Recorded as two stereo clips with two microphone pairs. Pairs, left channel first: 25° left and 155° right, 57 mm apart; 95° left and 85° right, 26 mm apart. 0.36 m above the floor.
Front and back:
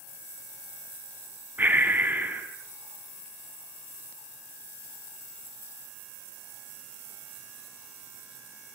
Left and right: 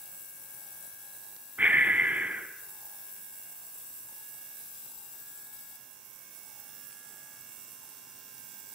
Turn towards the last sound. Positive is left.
turn(degrees=-95)